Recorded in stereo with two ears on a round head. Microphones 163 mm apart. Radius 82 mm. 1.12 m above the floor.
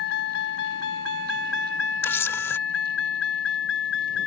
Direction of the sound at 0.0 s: 60° left (ahead or behind).